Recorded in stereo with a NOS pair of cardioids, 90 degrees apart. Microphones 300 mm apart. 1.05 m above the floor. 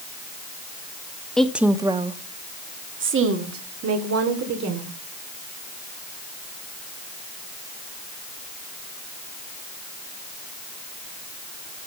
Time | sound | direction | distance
1.4 | a woman speaking | 5° left | 1.4 m